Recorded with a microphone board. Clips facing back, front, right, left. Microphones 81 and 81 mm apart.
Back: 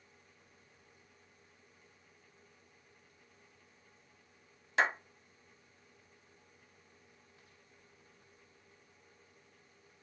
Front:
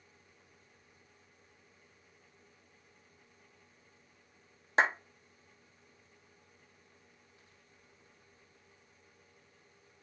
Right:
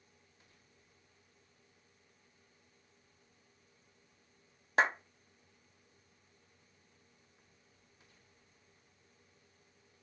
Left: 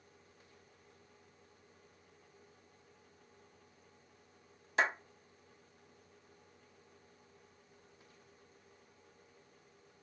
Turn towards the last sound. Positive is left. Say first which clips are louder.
# front 2 dB, right 3 dB
turn(degrees=-55)